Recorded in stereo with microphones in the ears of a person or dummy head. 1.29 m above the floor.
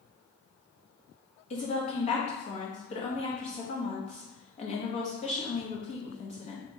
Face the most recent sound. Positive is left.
turn(degrees=40)  # may be behind; listen again after turning